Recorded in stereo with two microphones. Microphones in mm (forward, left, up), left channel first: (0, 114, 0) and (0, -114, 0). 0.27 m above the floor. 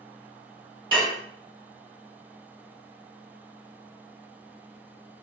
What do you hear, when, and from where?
0.9 s dishes clattering: 20° right (ahead or behind), 0.8 m